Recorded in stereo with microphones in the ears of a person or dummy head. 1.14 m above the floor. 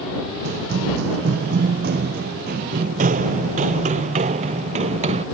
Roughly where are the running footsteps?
Right.